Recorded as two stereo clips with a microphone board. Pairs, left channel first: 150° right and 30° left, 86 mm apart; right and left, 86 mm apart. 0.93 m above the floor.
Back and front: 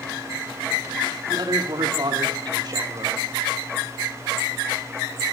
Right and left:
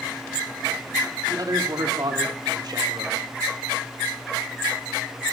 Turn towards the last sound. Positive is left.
turn(degrees=65)